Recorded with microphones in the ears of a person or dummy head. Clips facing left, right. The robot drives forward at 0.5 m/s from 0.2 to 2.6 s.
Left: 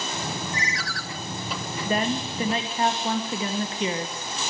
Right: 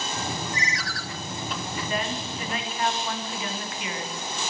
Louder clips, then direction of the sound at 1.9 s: Left 7 dB; 40° left (ahead or behind).